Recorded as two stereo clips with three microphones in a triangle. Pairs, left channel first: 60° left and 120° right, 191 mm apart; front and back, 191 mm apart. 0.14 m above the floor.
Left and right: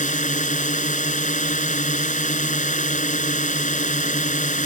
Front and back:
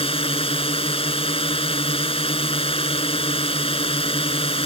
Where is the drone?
45° left.